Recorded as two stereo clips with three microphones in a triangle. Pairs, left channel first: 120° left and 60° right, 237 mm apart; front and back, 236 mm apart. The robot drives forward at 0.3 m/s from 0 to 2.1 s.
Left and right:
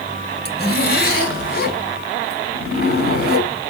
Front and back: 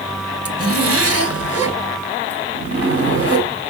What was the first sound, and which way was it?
A zipper, 165° left.